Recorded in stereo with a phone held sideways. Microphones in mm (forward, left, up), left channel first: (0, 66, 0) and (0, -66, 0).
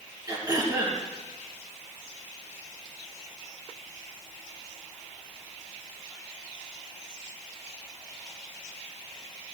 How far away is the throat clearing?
About 3 m.